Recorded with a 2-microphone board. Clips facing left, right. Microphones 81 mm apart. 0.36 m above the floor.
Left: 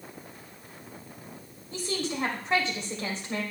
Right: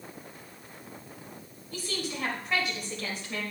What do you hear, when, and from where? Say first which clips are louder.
1.7 s a woman speaking: left 4 dB; 30° left (ahead or behind), 1.9 m